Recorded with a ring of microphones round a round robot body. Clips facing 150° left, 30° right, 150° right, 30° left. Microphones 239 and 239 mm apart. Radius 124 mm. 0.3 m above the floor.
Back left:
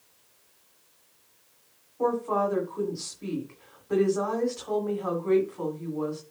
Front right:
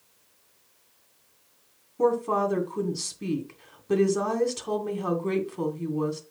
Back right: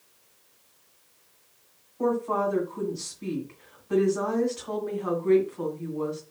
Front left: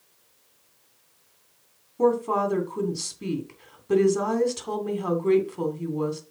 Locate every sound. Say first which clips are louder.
2.0 s a woman speaking: front right 3 dB, front left 4 dB; 5° left, 2.5 m